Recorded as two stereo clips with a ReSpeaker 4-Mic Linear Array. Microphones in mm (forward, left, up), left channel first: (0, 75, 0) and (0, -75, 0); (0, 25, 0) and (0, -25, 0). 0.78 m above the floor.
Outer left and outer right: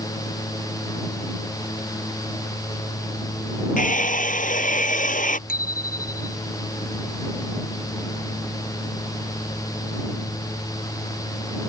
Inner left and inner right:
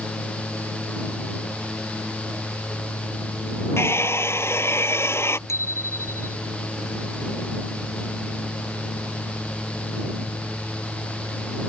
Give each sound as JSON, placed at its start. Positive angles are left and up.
{"t": 3.8, "sound": "a hair dryer", "side_deg": 65}
{"t": 5.5, "sound": "a bicycle bell", "side_deg": 85}